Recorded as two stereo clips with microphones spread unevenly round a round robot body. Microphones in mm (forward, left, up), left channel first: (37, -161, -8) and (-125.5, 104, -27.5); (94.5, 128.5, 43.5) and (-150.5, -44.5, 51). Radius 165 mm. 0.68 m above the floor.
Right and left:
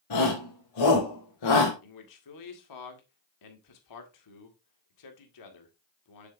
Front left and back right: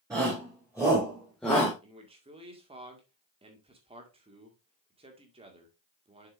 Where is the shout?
65° right, 3.5 m; by 1.7 s 45° right, 2 m.